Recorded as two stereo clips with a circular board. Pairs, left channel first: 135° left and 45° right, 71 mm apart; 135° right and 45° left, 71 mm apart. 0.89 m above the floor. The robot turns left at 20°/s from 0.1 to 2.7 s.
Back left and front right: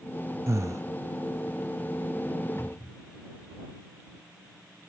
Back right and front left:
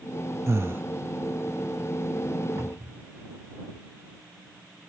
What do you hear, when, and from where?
0.5 s breathing: straight ahead; by 0.8 s 10° right
2.6 s a cupboard door: 90° left; by 3.1 s 85° left